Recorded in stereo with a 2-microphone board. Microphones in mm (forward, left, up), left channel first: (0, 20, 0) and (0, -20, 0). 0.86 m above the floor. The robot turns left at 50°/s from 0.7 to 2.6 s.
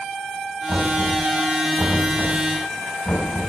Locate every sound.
0.7 s knocking: 50° right (ahead or behind), 4 m; by 3.5 s 45° left (ahead or behind), 4 m